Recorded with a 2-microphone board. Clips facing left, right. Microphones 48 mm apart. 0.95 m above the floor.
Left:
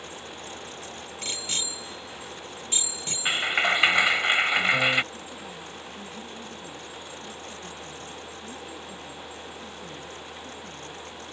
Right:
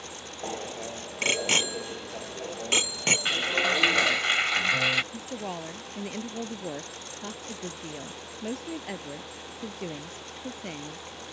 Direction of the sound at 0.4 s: 50° right (ahead or behind).